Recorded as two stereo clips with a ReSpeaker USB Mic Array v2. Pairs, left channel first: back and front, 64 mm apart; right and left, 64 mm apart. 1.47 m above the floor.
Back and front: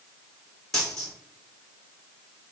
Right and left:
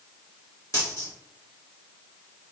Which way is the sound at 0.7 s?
105° right.